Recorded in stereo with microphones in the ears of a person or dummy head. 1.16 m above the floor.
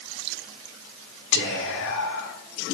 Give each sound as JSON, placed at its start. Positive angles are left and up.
{"t": 1.3, "sound": "whispering", "side_deg": 60, "distance_m": 1.3}